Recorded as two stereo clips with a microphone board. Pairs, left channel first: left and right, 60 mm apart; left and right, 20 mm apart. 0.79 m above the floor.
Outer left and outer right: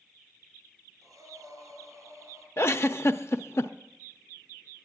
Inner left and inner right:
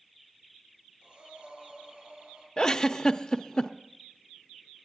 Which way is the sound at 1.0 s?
70° right (ahead or behind).